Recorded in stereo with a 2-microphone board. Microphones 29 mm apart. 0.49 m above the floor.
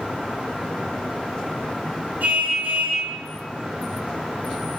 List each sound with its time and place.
2.2 s a car horn: 65° right (ahead or behind), 9.5 m